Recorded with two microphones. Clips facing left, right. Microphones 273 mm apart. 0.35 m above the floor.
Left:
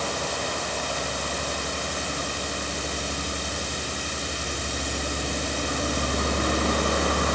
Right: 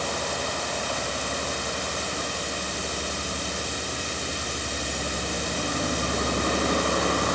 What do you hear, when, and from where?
Only background noise.